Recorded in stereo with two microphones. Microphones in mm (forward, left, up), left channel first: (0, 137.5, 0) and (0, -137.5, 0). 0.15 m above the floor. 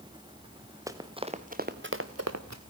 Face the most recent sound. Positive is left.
turn(degrees=-80)